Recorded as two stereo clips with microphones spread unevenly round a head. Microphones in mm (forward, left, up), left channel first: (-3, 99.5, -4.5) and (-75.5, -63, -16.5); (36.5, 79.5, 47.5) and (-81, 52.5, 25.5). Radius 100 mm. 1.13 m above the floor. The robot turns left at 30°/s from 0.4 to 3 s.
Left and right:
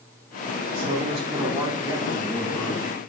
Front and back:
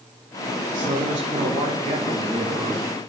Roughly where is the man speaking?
Behind right.